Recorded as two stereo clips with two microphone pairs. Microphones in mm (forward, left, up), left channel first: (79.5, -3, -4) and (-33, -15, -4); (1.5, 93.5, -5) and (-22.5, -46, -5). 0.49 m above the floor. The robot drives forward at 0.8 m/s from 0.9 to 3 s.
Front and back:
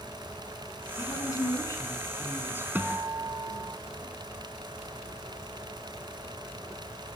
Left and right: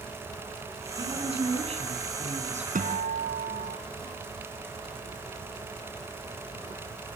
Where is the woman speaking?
50° right, 6 m; by 2.6 s 65° right, 5 m.